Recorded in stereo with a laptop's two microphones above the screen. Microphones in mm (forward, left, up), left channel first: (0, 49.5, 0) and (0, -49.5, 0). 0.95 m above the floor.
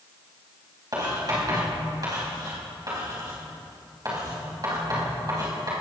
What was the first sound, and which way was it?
Writing, 45° right (ahead or behind).